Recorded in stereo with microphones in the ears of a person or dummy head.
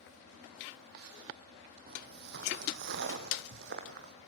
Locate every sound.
1.9 s footsteps: 50° right (ahead or behind), 3 m; by 4.1 s 60° right (ahead or behind), 4 m